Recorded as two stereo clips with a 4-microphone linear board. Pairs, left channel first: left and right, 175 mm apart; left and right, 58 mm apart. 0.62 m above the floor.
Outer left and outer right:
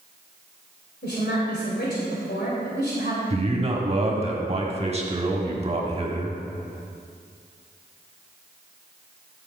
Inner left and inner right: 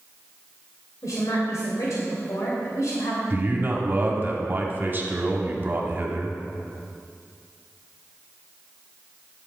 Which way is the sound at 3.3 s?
35° right (ahead or behind).